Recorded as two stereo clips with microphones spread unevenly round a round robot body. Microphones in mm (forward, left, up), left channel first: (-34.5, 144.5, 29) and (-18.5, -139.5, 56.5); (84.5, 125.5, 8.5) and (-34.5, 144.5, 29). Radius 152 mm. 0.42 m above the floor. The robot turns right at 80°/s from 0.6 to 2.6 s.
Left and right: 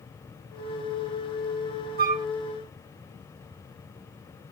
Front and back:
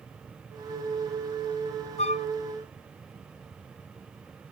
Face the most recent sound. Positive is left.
turn(degrees=20)